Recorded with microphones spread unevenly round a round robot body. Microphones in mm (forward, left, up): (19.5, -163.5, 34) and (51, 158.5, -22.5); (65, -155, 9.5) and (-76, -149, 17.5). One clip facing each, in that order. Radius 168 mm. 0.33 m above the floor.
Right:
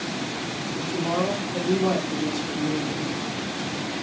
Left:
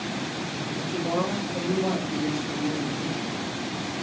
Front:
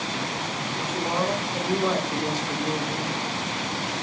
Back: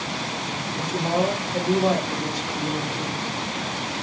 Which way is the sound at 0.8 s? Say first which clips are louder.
Right 1 dB, back 4 dB; 160° right.